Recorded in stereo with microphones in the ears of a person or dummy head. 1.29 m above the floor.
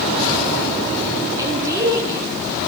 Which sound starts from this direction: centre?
A woman speaking, at 1.4 s.